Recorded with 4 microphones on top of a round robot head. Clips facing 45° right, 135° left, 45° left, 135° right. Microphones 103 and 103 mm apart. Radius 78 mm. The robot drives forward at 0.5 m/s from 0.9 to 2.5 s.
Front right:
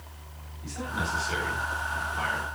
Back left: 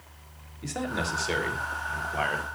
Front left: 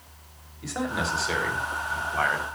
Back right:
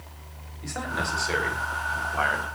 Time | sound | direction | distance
0.6 | a man speaking | 130° left | 3.5 m